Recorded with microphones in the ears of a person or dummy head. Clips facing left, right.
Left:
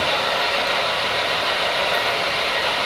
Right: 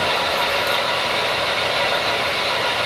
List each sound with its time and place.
0.0 s an engine running: 15° right (ahead or behind), 6.5 m